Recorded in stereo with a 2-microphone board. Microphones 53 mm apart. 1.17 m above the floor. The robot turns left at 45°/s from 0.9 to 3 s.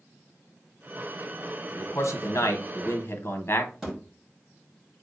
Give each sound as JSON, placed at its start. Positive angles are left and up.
{"t": 1.7, "sound": "a man speaking", "azimuth_deg": 110, "distance_m": 0.7}
{"t": 3.8, "sound": "a thud", "side_deg": -10, "distance_m": 1.3}